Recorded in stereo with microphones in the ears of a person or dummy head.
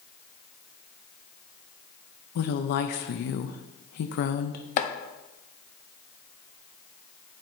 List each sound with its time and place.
2.4 s a woman speaking: 55° left (ahead or behind), 0.5 m
4.8 s chopping: 40° left (ahead or behind), 0.7 m